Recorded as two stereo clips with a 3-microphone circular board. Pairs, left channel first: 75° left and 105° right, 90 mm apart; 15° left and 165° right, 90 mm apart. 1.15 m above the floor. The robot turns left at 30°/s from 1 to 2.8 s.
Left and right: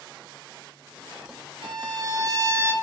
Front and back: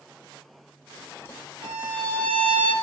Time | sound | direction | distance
1.6 | a violin | 135° right | 0.7 m